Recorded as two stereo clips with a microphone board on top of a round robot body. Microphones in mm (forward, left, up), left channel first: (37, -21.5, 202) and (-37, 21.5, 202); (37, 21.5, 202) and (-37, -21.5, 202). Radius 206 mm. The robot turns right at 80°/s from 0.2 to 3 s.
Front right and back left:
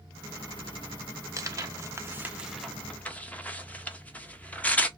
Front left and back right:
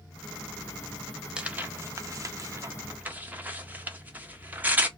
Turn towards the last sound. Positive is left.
turn(degrees=-90)